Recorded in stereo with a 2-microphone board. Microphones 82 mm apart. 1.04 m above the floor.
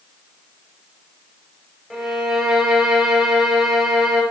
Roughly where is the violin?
Centre.